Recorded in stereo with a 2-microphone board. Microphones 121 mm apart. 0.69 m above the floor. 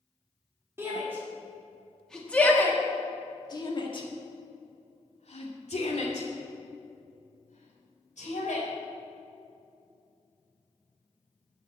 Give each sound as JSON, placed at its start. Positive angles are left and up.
{"t": 0.8, "sound": "a shout", "side_deg": -20, "distance_m": 1.7}